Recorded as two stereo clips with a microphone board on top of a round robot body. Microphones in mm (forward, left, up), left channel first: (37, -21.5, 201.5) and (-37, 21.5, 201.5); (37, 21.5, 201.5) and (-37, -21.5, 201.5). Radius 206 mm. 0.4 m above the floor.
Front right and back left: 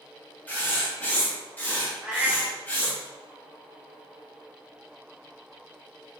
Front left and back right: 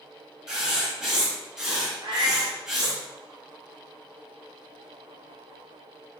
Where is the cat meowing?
130° right, 0.7 m.